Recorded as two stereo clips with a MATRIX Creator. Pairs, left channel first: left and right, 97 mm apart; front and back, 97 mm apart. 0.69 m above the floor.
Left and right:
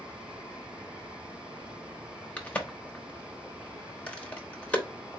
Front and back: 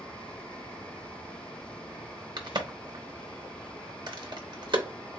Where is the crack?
160° left, 0.8 m.